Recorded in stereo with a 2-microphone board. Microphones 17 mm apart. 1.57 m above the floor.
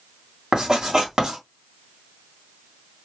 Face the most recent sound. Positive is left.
turn(degrees=-50)  # may be behind; listen again after turning